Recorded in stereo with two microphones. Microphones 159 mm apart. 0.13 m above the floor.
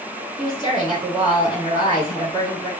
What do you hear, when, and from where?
0.4 s a woman speaking: 30° left (ahead or behind), 1.9 m